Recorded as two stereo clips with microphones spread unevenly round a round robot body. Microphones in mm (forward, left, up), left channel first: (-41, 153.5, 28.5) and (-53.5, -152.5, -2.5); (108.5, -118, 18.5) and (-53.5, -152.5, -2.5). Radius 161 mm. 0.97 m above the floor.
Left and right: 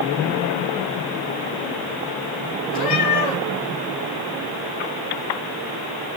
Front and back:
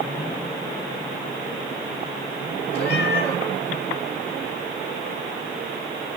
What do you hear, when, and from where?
2.7 s a cat meowing: 25° left, 3.5 m